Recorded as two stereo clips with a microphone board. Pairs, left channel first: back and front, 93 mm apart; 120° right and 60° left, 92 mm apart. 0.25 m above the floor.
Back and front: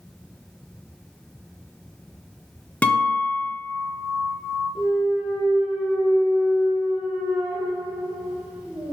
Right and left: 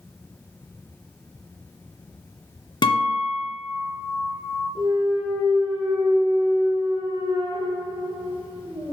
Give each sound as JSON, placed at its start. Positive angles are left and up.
{"t": 2.8, "sound": "a guitar", "azimuth_deg": -105, "distance_m": 1.3}
{"t": 4.8, "sound": "a clunk", "azimuth_deg": 75, "distance_m": 3.5}